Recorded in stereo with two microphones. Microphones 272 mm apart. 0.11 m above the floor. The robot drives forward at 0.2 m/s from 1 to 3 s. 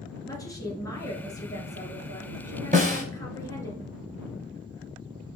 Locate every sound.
0.3 s a woman speaking: 15° left (ahead or behind), 1.5 m; by 3.7 s 10° left (ahead or behind), 1.7 m
2.7 s a snare drum: 30° right (ahead or behind), 1.1 m